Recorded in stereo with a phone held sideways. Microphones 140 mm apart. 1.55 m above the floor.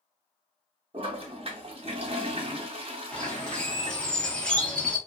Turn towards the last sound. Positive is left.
turn(degrees=5)  # may be behind; listen again after turning